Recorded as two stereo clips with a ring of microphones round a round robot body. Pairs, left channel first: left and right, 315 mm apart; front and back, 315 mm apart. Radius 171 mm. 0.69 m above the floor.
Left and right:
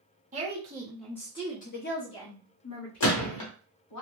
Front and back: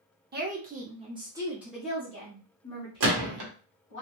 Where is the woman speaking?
140° right, 0.9 m; by 4.0 s 65° left, 1.8 m.